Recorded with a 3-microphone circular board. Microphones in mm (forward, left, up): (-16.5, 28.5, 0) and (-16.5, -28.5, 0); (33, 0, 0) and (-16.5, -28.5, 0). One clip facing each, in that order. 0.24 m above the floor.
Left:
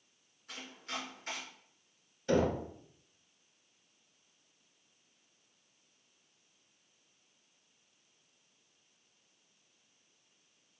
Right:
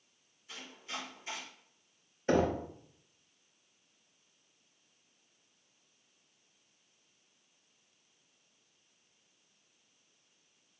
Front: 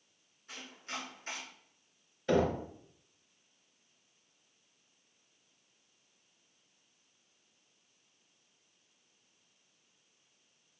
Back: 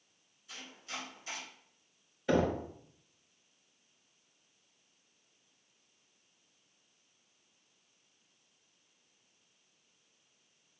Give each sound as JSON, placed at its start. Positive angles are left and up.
{"t": 0.5, "sound": "chopping", "azimuth_deg": 70, "distance_m": 1.6}
{"t": 2.3, "sound": "knocking", "azimuth_deg": -70, "distance_m": 0.7}